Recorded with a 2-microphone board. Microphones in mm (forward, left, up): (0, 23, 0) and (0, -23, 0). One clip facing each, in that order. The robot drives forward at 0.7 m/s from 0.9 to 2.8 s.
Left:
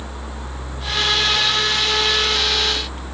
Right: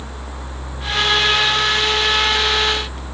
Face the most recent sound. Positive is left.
No sound to turn to.